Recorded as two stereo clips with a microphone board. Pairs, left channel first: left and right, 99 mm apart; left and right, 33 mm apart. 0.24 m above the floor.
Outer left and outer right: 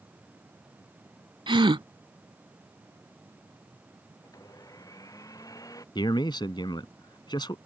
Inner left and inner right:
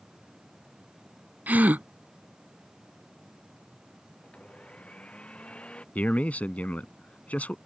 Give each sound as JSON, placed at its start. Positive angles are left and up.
{"t": 1.5, "sound": "a gasp", "side_deg": -60}
{"t": 4.2, "sound": "a blender", "side_deg": 35}
{"t": 6.0, "sound": "a man speaking", "side_deg": 50}